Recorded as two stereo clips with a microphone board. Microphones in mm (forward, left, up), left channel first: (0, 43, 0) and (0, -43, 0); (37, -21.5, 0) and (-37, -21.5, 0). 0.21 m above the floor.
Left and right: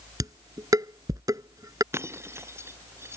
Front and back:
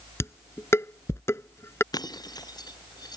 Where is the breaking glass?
30° right.